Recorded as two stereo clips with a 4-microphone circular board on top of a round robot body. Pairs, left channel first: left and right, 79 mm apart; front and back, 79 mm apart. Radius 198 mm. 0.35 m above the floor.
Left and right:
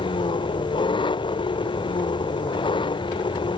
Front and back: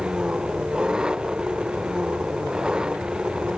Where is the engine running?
100° left.